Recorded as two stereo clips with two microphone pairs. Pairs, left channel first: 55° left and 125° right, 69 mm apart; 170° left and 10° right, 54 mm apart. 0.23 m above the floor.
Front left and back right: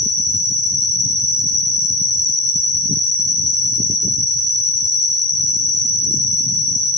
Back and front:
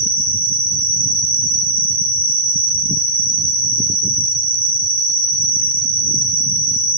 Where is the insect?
160° left, 1.3 m.